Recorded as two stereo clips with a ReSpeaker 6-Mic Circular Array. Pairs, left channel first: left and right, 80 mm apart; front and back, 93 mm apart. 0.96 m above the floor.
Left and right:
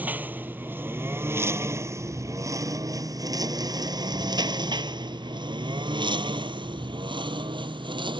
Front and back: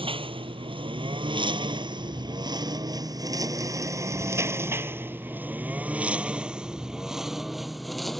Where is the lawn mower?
160° right; by 8.2 s 90° right.